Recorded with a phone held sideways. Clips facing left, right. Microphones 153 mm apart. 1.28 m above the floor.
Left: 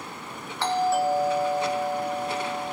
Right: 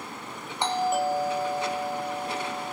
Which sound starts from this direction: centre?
A doorbell, at 0.6 s.